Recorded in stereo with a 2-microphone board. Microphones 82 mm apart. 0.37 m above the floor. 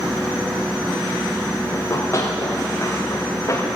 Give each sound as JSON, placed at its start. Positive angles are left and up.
{"t": 1.7, "sound": "running footsteps", "side_deg": 35, "distance_m": 6.5}